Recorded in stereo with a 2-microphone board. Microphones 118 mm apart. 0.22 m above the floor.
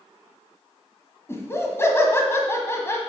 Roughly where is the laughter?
Left.